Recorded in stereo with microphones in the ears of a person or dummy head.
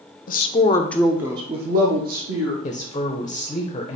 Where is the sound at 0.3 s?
45° left (ahead or behind), 0.7 m; by 2.5 s 55° right (ahead or behind), 1.1 m.